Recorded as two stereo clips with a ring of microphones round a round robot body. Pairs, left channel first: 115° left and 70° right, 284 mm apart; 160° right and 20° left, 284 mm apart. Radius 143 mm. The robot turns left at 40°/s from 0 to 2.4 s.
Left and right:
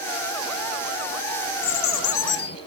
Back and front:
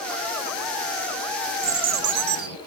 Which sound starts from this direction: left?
A bird, at 1.6 s.